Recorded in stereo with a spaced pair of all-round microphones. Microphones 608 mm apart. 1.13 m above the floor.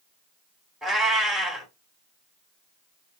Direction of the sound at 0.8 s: Centre (ahead or behind).